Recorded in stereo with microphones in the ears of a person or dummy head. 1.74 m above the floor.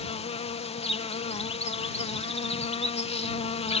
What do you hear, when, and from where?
0.0 s an insect: 35° left (ahead or behind)